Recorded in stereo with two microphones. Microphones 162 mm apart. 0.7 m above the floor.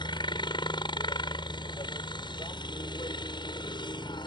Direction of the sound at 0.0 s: 30° left (ahead or behind).